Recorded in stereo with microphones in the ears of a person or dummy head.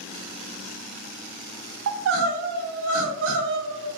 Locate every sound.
1.9 s crying: 70° right (ahead or behind), 0.6 m